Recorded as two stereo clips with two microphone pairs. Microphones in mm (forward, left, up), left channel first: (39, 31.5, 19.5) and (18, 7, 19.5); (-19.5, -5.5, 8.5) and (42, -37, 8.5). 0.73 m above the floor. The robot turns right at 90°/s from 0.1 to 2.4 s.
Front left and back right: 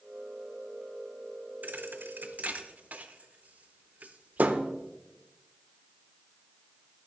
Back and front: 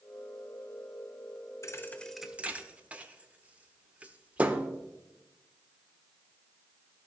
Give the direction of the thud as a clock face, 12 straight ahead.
5 o'clock.